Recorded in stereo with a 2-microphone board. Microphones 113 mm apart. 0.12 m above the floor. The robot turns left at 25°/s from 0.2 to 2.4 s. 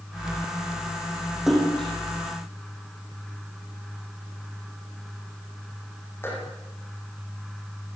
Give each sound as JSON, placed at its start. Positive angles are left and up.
{"t": 1.5, "sound": "a splash", "side_deg": -5, "distance_m": 7.0}